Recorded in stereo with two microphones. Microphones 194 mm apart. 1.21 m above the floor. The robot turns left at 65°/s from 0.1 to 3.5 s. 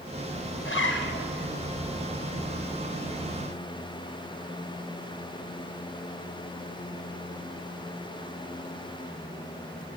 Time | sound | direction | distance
0.7 | a zipper | 90° left | 0.9 m